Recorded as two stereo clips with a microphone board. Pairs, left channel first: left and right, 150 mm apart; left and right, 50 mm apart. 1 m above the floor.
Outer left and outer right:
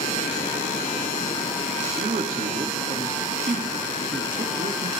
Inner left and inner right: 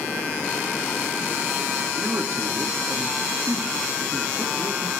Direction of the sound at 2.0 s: 60° right (ahead or behind).